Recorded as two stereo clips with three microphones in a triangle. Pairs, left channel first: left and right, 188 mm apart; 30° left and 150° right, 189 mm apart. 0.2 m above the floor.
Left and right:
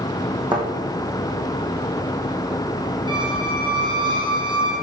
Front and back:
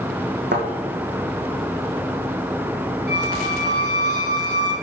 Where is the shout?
I don't hear a shout.